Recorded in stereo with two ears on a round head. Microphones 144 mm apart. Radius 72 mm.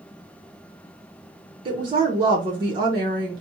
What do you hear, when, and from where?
1.6 s a woman speaking: 30° right (ahead or behind), 0.8 m